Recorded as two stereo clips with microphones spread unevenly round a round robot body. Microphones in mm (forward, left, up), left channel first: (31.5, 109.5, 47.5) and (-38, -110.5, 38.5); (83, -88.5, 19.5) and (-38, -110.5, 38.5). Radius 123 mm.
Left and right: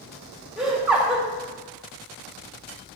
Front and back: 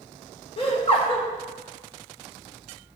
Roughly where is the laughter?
Ahead right.